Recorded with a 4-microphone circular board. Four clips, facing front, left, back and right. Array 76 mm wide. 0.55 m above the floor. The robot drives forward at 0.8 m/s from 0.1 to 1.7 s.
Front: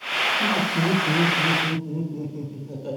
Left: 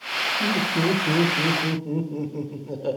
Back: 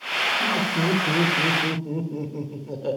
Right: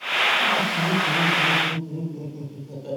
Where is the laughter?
80° left, 1.3 m; by 3.0 s 130° left, 1.5 m.